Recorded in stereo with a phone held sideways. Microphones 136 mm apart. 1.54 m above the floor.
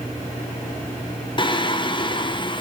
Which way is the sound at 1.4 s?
35° left (ahead or behind).